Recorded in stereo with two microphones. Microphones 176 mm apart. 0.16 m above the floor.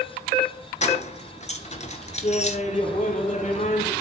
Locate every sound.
0.8 s keys jangling: 40° left (ahead or behind), 1.6 m
2.2 s laughter: 40° left (ahead or behind), 2.5 m